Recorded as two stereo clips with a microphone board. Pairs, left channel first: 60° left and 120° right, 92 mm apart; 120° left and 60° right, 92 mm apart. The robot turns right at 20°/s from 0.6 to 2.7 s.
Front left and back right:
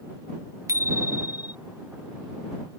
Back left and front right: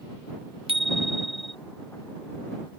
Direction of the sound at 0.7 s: 65° right.